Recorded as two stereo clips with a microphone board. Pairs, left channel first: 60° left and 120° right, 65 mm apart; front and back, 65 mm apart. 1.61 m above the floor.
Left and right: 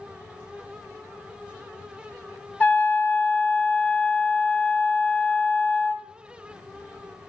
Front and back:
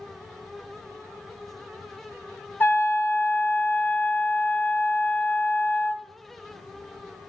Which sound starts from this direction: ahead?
A trumpet, at 2.6 s.